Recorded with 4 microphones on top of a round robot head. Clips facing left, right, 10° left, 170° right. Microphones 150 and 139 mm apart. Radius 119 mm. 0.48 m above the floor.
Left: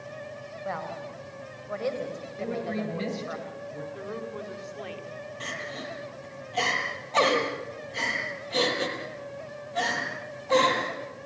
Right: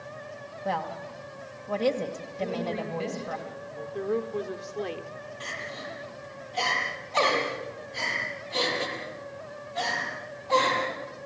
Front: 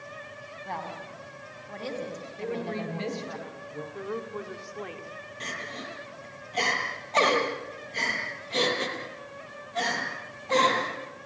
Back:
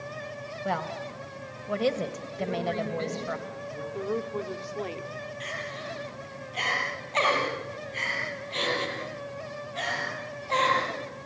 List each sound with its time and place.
0.7 s a woman speaking: 160° right, 2.5 m
2.4 s a woman speaking: 85° left, 9 m
3.9 s a woman speaking: 115° right, 1.7 m
5.4 s crying: 60° left, 6 m